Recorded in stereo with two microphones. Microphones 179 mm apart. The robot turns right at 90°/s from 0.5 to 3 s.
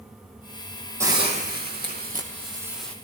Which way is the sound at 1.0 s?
165° right.